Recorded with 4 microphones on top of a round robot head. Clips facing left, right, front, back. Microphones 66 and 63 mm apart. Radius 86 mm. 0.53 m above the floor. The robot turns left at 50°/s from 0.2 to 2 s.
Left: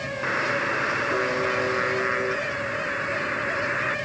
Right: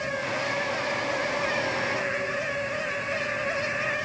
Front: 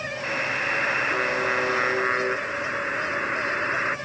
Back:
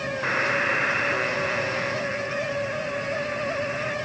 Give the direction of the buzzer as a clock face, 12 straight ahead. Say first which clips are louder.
Left 8 dB, back 3 dB; 8 o'clock.